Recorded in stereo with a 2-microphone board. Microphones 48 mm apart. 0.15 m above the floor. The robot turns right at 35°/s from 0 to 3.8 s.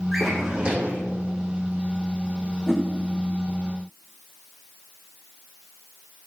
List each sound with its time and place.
0.1 s a drawer: straight behind, 2.5 m; by 1.0 s 145° right, 2.5 m
2.7 s a whoosh: centre (ahead or behind), 2 m; by 2.8 s 5° right (ahead or behind), 2 m